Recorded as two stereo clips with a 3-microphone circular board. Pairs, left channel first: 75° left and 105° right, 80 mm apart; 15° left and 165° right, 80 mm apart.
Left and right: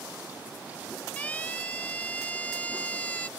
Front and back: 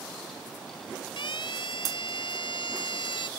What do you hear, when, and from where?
1.2 s a siren: 5° left